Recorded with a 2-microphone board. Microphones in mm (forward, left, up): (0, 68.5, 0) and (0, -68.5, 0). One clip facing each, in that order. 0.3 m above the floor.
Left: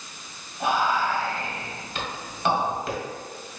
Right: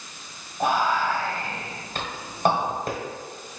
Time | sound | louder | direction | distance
0.6 | whispering | right 1 dB | 45° right (ahead or behind) | 1.4 m